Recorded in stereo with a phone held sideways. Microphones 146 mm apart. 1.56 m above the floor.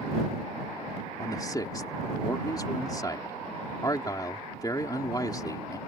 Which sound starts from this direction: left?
A man speaking, at 1.2 s.